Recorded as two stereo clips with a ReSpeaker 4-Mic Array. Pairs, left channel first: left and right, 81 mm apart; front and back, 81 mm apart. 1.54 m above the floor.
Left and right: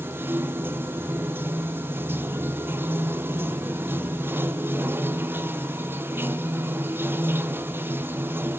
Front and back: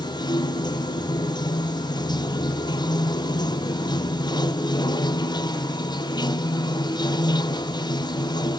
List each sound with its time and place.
0.0 s running water: 25° right, 0.7 m